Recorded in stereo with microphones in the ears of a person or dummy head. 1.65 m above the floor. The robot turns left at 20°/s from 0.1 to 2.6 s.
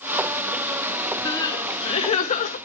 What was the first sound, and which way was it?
Crying, 25° left (ahead or behind).